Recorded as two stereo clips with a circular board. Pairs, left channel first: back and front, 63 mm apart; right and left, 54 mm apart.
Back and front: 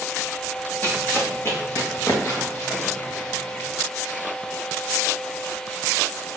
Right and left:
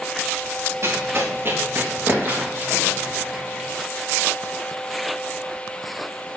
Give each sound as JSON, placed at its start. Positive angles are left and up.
{"t": 0.8, "sound": "running footsteps", "azimuth_deg": 120, "distance_m": 2.5}